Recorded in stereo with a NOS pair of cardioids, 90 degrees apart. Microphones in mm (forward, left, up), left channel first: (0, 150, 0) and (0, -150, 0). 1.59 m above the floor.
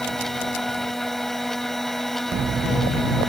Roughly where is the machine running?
Ahead.